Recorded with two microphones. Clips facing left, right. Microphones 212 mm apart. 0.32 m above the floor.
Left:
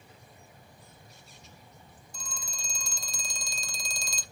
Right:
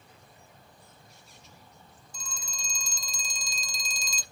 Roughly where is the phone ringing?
Left.